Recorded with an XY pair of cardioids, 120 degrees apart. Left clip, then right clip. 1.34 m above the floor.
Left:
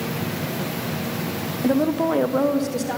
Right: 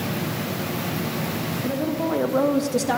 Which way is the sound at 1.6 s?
50° left.